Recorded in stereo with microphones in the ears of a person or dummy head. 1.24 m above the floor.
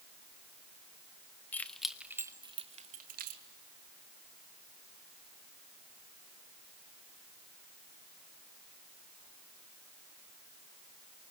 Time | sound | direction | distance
1.5 | keys jangling | 10° left (ahead or behind) | 1.0 m